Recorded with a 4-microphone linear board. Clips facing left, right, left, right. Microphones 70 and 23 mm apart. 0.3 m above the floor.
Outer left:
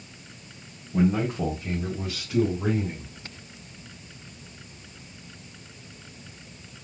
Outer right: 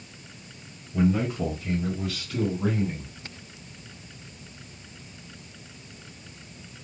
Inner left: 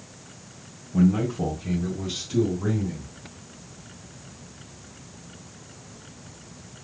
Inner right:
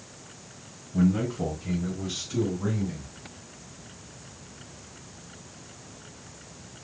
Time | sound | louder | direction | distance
0.9 | a man speaking | outer left 1 dB, inner left 3 dB | 55° left (ahead or behind) | 2.5 m